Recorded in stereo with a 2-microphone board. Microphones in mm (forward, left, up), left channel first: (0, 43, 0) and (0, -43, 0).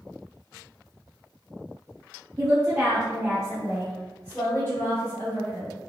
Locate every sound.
2.4 s a woman speaking: 30° right (ahead or behind), 1.1 m; by 5.8 s 35° left (ahead or behind), 2.0 m